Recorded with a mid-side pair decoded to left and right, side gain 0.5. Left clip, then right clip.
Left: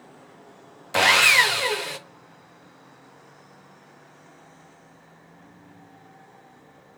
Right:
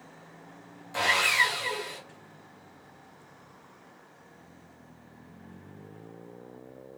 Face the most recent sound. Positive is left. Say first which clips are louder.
# left 8 dB
turn(degrees=70)